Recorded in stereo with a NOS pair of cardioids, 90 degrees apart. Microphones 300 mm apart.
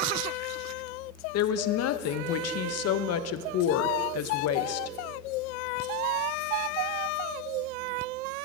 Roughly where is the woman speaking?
Ahead left.